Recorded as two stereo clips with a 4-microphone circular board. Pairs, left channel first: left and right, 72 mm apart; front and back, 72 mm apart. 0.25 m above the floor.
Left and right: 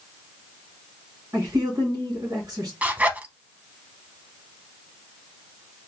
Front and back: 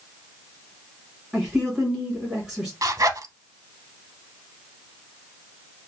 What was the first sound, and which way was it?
A woman speaking, 105° right.